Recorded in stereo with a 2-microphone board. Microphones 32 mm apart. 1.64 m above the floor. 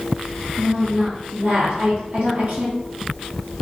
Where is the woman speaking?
65° right (ahead or behind), 1.2 m.